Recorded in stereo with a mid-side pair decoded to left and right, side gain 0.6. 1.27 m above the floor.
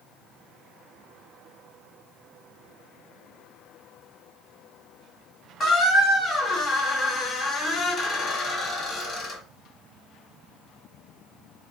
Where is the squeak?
50° left, 1.7 m.